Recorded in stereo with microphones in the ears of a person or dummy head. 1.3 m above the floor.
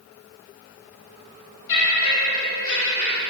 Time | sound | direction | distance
1.7 | laughter | 75° left (ahead or behind) | 2.5 m